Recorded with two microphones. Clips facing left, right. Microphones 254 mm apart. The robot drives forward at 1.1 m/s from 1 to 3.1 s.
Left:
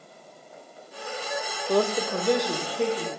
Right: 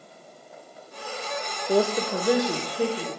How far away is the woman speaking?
About 0.5 m.